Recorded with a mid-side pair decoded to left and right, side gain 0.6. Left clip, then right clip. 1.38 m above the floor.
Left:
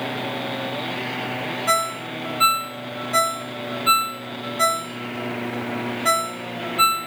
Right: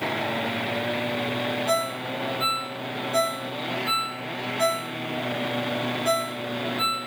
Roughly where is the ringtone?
Ahead left.